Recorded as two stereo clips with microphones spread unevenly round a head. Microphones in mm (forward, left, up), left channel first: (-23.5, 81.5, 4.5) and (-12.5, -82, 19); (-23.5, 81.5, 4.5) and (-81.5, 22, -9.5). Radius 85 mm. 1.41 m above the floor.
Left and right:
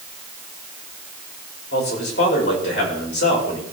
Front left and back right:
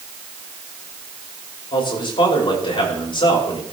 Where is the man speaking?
65° left, 5 m.